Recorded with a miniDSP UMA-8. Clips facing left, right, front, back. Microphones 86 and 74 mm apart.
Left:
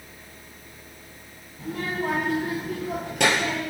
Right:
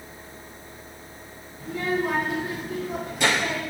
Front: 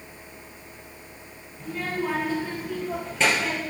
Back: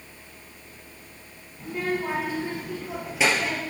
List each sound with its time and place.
1.6 s a child speaking: 110° left, 3.5 m; by 3.6 s 90° left, 2.5 m